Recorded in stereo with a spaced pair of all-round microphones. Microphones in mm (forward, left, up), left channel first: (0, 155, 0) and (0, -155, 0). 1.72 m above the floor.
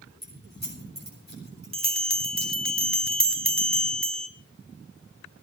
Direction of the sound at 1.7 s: 40° right (ahead or behind).